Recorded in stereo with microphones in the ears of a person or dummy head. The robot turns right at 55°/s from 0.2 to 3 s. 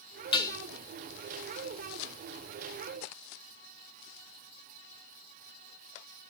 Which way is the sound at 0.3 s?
30° left (ahead or behind).